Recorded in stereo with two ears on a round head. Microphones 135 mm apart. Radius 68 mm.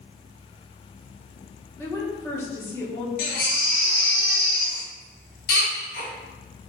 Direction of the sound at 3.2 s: 60° left (ahead or behind).